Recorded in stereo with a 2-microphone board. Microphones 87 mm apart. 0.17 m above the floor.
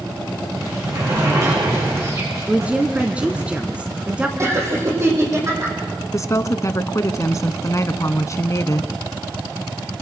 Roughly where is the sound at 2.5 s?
Centre.